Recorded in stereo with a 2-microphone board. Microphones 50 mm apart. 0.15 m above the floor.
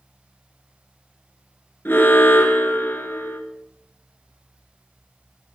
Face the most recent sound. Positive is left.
turn(degrees=50)  # may be behind; listen again after turning